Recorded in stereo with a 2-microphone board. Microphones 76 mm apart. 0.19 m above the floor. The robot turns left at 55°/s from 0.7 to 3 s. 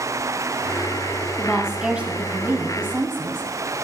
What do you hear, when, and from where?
1.4 s a woman speaking: centre (ahead or behind), 1.0 m; by 3.5 s 30° right (ahead or behind), 1.0 m